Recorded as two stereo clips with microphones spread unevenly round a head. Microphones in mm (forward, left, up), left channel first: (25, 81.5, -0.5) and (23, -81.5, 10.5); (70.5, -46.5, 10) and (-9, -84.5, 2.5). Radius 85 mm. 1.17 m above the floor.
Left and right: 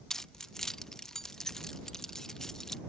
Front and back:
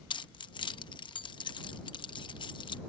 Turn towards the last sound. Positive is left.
turn(degrees=0)